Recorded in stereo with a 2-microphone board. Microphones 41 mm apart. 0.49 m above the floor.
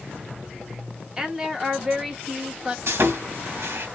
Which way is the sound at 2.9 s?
65° right (ahead or behind).